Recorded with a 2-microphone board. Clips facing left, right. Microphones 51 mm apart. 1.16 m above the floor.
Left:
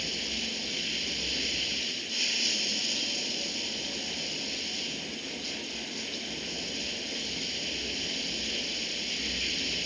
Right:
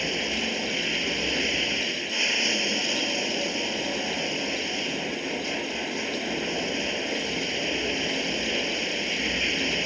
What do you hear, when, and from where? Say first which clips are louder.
0.0 s running water: right 8 dB; 45° right (ahead or behind)